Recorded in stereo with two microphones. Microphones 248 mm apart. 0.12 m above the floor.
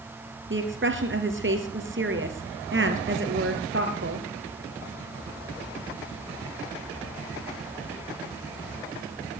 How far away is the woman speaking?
About 2 m.